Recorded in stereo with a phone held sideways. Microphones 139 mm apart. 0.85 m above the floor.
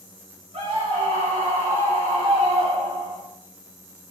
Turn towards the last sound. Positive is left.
turn(degrees=-45)  # may be behind; listen again after turning